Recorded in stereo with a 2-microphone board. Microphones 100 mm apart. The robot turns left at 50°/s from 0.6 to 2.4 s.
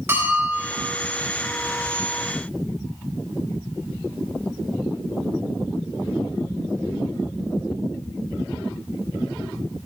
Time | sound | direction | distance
0.1 | a bell | 20° right (ahead or behind) | 4 m